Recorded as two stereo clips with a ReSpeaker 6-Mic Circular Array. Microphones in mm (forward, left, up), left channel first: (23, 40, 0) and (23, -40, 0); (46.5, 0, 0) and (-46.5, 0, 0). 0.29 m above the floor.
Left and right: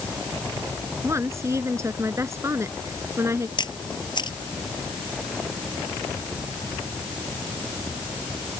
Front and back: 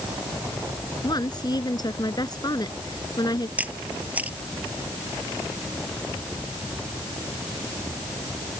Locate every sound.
1.0 s a woman speaking: 40° right
3.6 s a camera shutter: 105° left